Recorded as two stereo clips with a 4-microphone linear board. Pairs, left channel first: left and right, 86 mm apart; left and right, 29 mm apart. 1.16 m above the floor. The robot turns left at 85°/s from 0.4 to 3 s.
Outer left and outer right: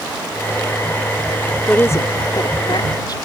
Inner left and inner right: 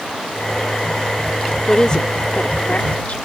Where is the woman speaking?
15° left (ahead or behind); by 3.2 s 55° left (ahead or behind).